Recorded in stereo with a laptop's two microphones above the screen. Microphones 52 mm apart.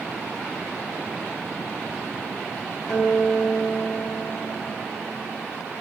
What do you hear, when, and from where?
2.9 s a guitar: 75° left (ahead or behind), 1.0 m